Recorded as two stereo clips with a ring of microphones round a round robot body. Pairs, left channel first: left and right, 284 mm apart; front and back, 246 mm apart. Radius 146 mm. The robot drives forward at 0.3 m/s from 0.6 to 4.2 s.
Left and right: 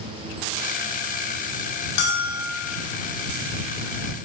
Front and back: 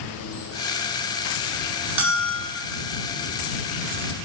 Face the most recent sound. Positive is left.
turn(degrees=155)